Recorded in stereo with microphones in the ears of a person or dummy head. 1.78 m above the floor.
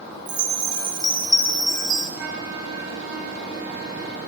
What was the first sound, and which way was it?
A chime, 10° right (ahead or behind).